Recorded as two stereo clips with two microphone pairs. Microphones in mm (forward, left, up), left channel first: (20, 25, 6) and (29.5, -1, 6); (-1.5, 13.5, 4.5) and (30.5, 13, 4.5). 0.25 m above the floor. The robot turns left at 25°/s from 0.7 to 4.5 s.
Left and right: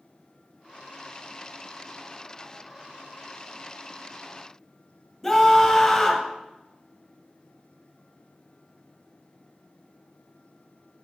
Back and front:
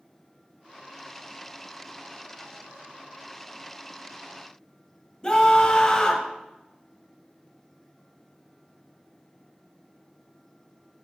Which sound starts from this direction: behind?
A scream, at 5.2 s.